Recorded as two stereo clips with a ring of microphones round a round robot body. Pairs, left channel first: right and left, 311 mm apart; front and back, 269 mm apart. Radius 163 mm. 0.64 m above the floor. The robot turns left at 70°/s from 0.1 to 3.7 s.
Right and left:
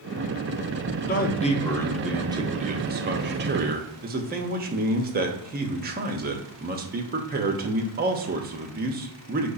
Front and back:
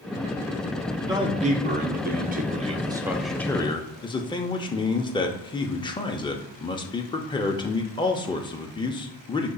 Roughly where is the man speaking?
Right.